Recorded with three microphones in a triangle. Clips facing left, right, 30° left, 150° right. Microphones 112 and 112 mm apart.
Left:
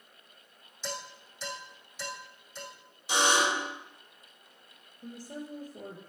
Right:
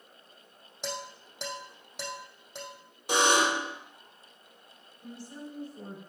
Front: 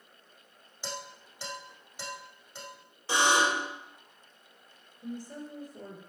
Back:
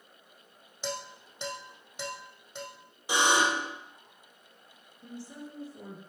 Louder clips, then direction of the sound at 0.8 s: Right 2 dB, back 4 dB; 85° right.